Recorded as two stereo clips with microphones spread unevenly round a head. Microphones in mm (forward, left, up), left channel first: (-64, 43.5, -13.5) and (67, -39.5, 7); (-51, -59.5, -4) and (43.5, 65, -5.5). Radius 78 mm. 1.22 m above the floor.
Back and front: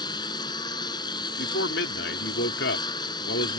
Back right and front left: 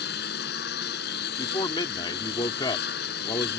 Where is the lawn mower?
145° right.